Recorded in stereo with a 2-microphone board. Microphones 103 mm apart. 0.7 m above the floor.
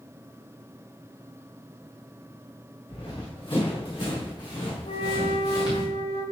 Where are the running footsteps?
55° left (ahead or behind), 4 m; by 5.8 s 40° left (ahead or behind), 5.5 m.